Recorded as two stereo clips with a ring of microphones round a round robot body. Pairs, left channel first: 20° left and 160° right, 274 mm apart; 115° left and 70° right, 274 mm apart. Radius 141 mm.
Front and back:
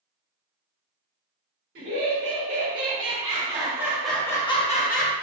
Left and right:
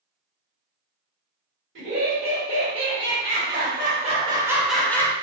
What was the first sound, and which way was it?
Laughter, 105° right.